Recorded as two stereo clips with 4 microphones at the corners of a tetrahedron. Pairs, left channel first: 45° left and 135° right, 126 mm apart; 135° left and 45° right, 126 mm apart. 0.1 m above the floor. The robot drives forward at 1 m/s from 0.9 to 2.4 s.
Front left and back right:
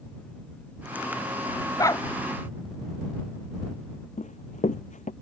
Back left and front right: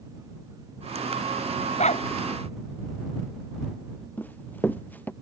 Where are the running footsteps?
60° left.